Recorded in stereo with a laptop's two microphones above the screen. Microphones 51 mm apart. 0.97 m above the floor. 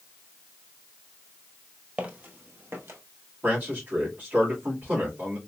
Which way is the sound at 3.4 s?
35° right (ahead or behind).